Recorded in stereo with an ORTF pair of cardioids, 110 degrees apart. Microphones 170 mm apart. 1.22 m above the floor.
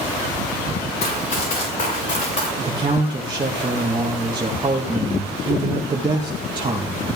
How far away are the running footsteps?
About 6.5 m.